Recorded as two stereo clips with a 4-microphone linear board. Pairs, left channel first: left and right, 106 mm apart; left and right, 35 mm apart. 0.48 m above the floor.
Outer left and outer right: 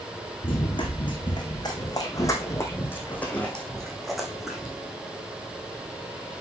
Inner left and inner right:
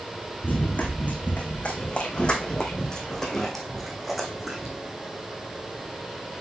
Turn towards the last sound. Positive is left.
turn(degrees=-10)  # may be behind; listen again after turning